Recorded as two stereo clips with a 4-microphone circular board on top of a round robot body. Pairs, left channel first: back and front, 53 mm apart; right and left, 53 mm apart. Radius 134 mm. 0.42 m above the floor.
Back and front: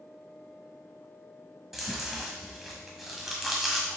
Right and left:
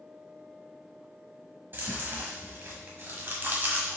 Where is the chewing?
85° left, 1.4 m.